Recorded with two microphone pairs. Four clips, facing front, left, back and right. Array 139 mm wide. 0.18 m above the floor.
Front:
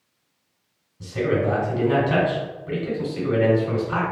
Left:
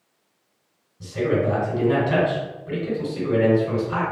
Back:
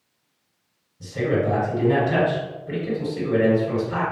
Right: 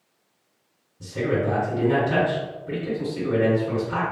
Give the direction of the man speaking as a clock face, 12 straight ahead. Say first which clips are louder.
Left 2 dB, even; 11 o'clock.